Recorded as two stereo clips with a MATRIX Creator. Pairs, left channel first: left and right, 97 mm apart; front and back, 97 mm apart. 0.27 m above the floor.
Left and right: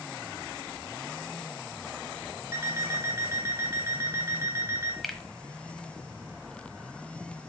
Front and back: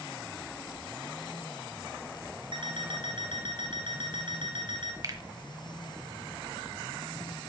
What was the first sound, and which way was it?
An alarm clock, 150° right.